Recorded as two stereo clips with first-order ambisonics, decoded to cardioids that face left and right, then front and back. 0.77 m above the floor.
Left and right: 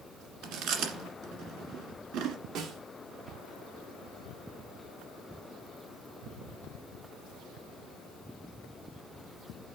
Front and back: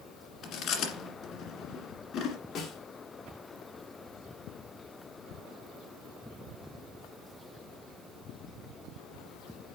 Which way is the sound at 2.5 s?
60° right.